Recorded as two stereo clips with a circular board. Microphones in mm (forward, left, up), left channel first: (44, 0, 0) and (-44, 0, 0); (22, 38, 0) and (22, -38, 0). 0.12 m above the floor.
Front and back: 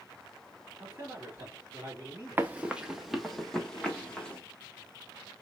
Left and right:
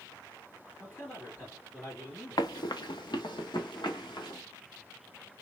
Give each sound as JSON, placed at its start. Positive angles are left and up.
{"t": 0.8, "sound": "a man speaking", "azimuth_deg": 120, "distance_m": 2.5}
{"t": 2.4, "sound": "running footsteps", "azimuth_deg": 110, "distance_m": 0.6}